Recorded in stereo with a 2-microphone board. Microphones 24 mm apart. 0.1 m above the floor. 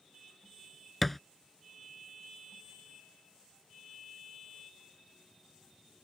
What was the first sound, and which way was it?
A thud, 5° left (ahead or behind).